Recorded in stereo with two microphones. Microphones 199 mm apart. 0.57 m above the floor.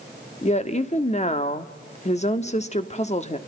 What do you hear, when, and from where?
0.4 s a woman speaking: 35° left (ahead or behind), 1.2 m